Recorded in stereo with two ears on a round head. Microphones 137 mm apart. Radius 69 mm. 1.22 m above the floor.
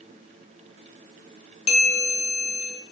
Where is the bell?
40° left (ahead or behind), 0.6 m.